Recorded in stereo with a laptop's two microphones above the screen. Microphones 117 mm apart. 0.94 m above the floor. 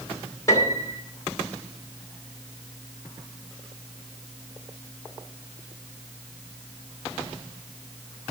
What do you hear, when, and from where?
0.5 s a piano: 30° left (ahead or behind), 2 m